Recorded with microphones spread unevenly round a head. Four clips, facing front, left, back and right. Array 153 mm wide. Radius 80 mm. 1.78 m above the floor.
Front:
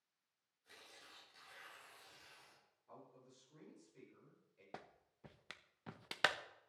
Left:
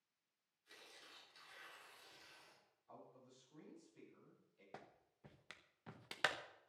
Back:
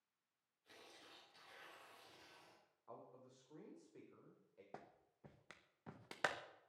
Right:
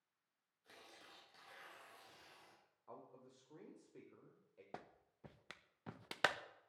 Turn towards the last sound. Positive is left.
turn(degrees=-65)